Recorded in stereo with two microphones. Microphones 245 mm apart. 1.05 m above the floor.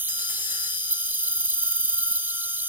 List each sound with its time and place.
0.0 s an insect: 10° right (ahead or behind)